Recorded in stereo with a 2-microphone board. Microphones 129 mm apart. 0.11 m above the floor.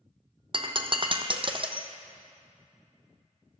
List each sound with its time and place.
0.5 s breaking glass: 45° right (ahead or behind), 1.0 m